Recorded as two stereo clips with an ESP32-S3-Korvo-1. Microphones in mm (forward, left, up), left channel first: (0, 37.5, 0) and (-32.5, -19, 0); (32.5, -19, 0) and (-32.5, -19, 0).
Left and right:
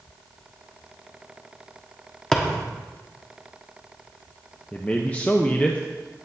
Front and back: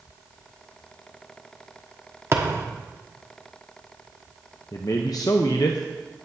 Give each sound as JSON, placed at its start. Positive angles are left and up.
{"t": 2.3, "sound": "a thud", "azimuth_deg": 140, "distance_m": 1.3}
{"t": 4.7, "sound": "a man speaking", "azimuth_deg": -5, "distance_m": 0.7}